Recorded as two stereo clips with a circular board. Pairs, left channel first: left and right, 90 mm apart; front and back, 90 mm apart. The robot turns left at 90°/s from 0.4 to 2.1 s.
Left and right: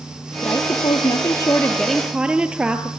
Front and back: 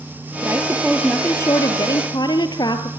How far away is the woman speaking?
About 2.5 m.